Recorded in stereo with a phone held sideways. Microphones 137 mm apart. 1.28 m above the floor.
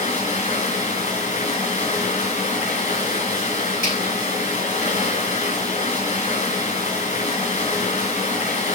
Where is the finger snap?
75° left (ahead or behind), 7.5 m.